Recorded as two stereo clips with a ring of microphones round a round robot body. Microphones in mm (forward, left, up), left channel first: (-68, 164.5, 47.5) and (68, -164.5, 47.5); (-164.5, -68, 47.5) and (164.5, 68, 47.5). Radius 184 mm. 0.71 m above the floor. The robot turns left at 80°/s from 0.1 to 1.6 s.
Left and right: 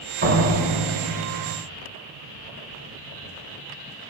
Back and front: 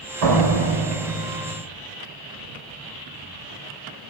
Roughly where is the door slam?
Ahead.